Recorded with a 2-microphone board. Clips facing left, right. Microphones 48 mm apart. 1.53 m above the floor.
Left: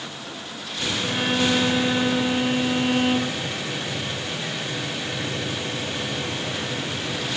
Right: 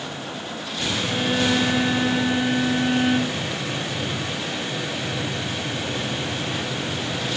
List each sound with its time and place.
1.0 s a violin: 70° left (ahead or behind), 8.5 m